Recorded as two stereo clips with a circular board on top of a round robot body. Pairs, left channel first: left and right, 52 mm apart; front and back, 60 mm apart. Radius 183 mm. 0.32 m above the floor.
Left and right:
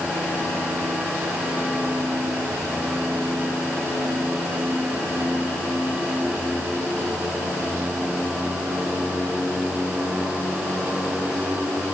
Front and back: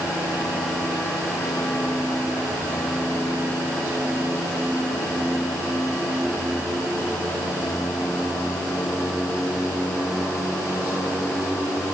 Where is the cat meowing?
No cat meowing in this recording.